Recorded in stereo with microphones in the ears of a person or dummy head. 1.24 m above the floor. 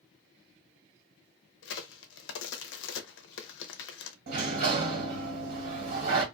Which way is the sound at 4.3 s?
60° right (ahead or behind).